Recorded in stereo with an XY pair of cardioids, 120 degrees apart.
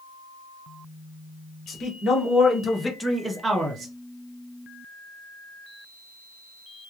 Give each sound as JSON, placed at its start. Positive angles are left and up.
{"t": 1.7, "sound": "a man speaking", "azimuth_deg": 50, "distance_m": 1.6}